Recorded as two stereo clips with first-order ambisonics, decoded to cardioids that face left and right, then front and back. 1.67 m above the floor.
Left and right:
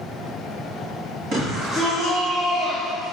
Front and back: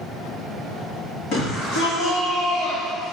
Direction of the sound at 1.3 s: 35° right.